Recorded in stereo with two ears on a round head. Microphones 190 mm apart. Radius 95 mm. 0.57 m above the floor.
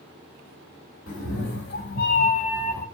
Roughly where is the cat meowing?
Left.